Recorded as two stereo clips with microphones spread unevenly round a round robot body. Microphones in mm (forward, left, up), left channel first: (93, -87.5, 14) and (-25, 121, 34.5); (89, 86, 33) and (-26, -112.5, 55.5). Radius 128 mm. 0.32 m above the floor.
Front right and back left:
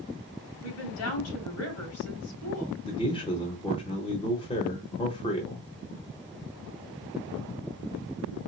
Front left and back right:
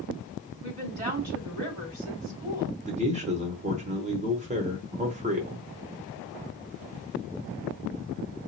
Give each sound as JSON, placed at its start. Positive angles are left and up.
{"t": 0.6, "sound": "a woman speaking", "azimuth_deg": -65, "distance_m": 2.5}
{"t": 2.8, "sound": "a man speaking", "azimuth_deg": -90, "distance_m": 0.9}